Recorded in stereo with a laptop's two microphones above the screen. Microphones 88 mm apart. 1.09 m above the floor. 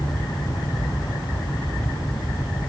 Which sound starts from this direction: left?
A fan, at 0.0 s.